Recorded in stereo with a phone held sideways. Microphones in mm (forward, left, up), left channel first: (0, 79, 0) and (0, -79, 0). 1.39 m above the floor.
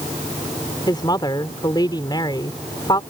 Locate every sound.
0.9 s a woman speaking: 25° left (ahead or behind)